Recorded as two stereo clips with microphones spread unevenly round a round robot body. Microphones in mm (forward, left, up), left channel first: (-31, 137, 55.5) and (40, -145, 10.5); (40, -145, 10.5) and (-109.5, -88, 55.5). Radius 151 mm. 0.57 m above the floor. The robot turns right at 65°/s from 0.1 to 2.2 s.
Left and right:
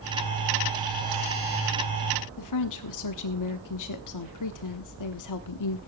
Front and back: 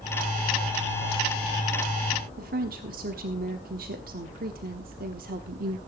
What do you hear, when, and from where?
2.4 s a woman speaking: 115° left, 1.1 m